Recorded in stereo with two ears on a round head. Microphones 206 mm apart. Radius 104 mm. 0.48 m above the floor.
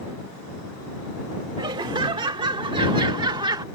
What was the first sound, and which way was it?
Laughter, 20° right (ahead or behind).